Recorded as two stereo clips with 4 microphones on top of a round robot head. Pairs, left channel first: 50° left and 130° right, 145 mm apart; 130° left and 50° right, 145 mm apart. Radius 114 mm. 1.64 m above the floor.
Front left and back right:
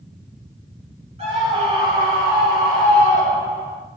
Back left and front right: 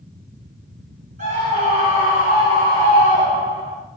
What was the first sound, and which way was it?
A scream, 85° right.